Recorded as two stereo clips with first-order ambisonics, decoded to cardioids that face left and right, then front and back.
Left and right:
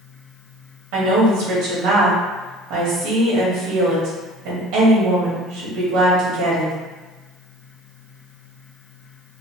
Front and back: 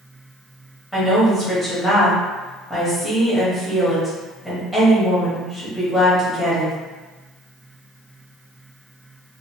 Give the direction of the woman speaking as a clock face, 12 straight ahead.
3 o'clock.